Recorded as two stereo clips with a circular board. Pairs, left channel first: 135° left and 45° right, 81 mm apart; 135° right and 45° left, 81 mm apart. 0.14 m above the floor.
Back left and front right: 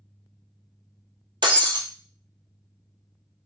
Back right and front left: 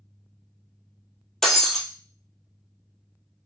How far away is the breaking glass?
About 0.9 m.